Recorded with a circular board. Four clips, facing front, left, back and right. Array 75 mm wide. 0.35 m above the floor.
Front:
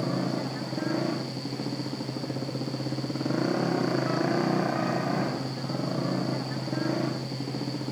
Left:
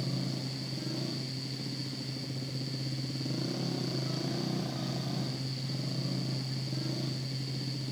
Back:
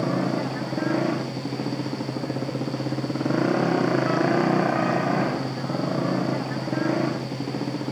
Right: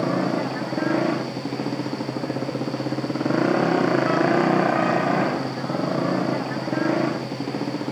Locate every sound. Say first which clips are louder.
0.0 s a motorcycle: right 15 dB, back 5 dB; 110° right